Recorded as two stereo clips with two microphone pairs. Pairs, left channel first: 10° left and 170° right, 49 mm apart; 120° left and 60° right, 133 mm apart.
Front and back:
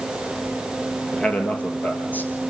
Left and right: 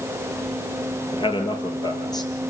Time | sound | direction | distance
1.1 | a man speaking | 80° left | 3.5 m